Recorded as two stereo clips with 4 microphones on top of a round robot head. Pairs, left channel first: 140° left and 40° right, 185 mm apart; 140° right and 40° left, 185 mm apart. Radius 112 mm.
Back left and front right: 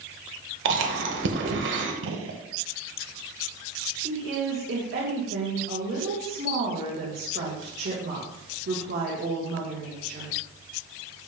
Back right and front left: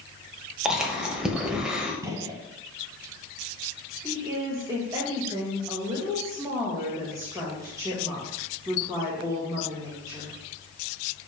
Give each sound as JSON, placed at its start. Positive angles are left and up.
{"t": 0.7, "sound": "chewing", "azimuth_deg": -45, "distance_m": 1.2}
{"t": 2.0, "sound": "a gunshot", "azimuth_deg": -35, "distance_m": 0.8}
{"t": 4.0, "sound": "a woman speaking", "azimuth_deg": -30, "distance_m": 2.0}